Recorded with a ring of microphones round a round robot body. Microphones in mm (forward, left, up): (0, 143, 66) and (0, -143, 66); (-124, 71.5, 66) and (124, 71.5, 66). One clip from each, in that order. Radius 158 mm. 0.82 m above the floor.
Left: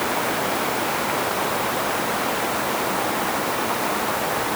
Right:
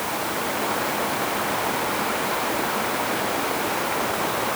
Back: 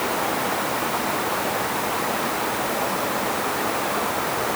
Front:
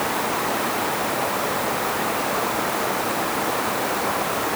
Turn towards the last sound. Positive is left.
No sound to turn to.